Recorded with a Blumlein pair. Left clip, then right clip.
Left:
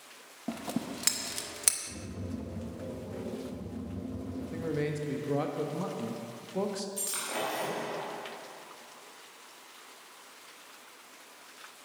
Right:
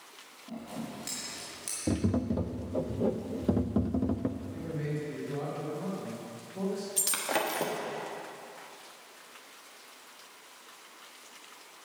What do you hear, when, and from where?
0.5 s scissors: 55° left, 1.0 m
1.9 s tapping: 40° right, 0.5 m
4.4 s a man speaking: 65° left, 1.4 m
7.0 s breaking glass: 60° right, 1.4 m